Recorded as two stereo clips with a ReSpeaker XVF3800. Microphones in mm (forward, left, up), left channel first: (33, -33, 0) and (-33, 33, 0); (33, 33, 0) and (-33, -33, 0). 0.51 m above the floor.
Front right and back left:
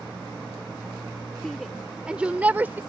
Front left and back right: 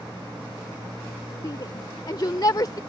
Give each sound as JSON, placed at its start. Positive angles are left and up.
{"t": 1.4, "sound": "a shout", "azimuth_deg": 40}